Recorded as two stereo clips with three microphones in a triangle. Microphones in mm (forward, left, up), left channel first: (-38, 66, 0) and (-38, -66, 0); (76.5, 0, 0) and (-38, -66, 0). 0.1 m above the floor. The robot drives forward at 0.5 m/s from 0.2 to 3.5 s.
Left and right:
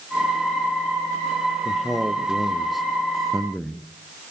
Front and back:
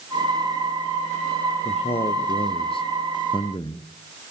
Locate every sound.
1.6 s a man speaking: straight ahead, 2 m